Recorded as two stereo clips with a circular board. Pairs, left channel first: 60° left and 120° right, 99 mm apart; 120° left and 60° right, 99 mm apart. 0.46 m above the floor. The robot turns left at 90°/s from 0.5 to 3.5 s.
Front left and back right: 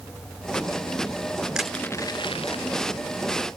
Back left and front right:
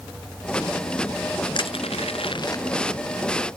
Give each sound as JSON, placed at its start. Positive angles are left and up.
{"t": 1.6, "sound": "crushing", "azimuth_deg": 160}